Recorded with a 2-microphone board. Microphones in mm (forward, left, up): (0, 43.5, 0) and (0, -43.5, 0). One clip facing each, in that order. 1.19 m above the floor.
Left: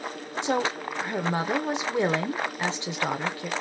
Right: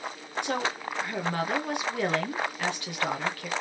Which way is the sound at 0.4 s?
20° left (ahead or behind).